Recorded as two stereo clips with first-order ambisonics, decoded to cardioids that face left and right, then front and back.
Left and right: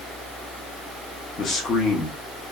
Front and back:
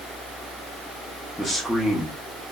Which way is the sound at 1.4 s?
80° left.